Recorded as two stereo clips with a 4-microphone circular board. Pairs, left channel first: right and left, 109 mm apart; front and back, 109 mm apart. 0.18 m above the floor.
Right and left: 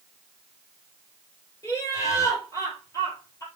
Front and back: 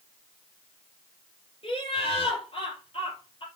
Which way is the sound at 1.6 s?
30° right.